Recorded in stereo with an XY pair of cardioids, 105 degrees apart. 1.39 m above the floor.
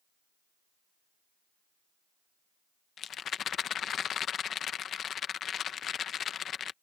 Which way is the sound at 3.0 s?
55° left.